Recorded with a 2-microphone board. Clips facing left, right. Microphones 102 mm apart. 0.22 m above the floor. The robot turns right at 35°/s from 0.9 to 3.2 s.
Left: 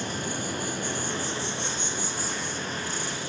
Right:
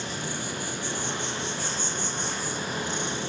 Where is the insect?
130° left, 0.8 m; by 3.3 s 150° right, 0.8 m.